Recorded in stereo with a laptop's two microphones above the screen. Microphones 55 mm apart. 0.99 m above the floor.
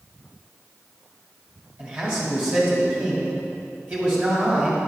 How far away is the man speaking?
About 1.9 m.